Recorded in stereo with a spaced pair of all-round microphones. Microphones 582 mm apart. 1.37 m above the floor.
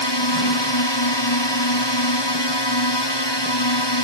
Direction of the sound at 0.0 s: 45° left (ahead or behind).